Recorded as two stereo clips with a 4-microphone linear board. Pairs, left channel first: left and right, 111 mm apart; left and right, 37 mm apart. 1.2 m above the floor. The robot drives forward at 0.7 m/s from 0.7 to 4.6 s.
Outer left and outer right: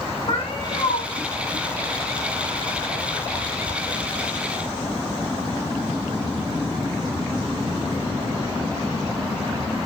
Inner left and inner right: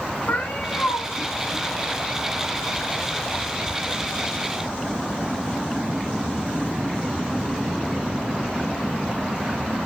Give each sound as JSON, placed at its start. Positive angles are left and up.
{"t": 0.3, "sound": "a cat meowing", "side_deg": 60, "distance_m": 1.9}